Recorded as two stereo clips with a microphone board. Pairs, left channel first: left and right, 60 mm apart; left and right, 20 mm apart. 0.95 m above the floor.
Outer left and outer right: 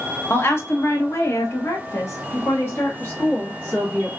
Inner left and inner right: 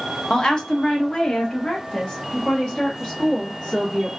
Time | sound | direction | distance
0.3 | a woman speaking | 40° left (ahead or behind) | 1.0 m